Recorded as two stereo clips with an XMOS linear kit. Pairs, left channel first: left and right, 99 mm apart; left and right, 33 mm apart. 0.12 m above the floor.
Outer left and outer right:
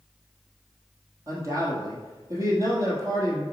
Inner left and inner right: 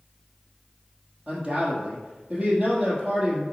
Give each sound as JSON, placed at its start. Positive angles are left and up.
{"t": 1.3, "sound": "a man speaking", "side_deg": -30, "distance_m": 3.0}